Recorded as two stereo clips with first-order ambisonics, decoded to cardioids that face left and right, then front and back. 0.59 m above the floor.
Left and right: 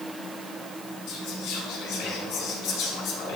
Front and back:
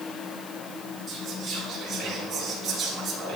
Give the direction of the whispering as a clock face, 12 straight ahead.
9 o'clock.